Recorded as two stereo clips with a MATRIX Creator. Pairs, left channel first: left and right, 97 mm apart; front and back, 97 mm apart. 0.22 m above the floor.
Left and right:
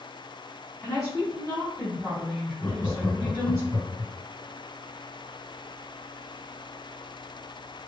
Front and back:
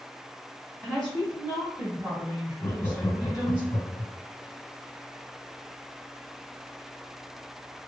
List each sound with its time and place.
0.8 s a woman speaking: 100° left, 1.9 m; by 3.6 s 120° right, 1.8 m
2.6 s laughter: 40° left, 2.0 m